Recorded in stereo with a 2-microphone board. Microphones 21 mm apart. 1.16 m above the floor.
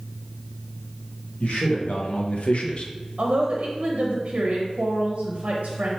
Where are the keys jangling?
No keys jangling in this recording.